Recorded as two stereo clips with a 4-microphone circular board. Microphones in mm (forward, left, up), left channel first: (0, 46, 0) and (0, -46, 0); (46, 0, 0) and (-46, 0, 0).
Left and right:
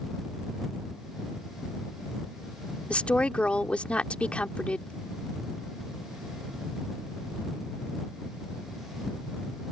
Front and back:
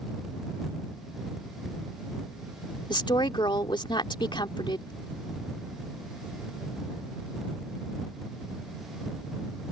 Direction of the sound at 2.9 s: 15° left.